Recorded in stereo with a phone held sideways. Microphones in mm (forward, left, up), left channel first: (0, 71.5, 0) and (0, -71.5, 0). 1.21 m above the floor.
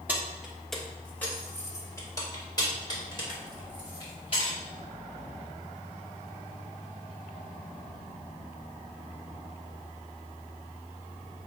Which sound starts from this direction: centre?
Keys jangling, at 0.1 s.